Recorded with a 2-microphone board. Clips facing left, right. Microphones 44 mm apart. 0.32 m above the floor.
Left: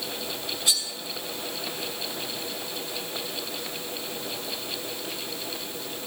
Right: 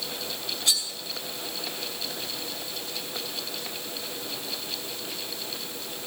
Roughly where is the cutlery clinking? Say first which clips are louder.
Even; centre.